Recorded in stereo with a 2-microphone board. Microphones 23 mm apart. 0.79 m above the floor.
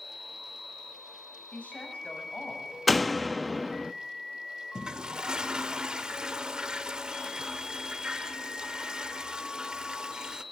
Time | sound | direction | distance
1.5 | a woman speaking | 80° left | 5.5 m
2.9 | a door slam | 5° right (ahead or behind) | 0.6 m
4.8 | a toilet flushing | 40° right (ahead or behind) | 0.9 m